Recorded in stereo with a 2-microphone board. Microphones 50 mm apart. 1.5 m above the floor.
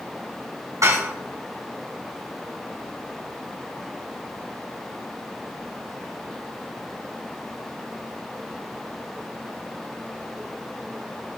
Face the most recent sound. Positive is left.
turn(degrees=-80)